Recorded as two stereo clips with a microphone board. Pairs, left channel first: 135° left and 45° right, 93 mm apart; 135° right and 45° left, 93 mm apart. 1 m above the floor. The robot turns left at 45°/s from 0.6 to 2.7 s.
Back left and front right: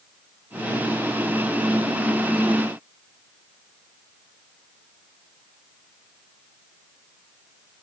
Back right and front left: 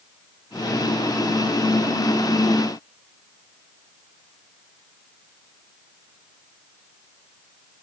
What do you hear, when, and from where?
Only background noise.